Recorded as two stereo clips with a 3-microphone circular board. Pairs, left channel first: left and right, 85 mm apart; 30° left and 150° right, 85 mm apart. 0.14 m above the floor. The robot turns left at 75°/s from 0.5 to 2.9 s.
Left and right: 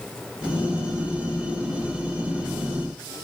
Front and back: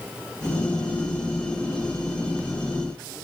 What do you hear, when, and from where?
Only background noise.